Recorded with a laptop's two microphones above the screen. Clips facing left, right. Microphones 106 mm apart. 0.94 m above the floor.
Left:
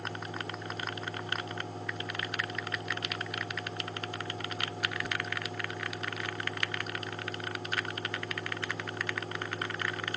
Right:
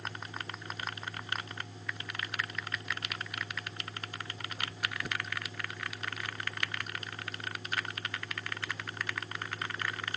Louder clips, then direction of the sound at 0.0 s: Left 4 dB; 70° left (ahead or behind).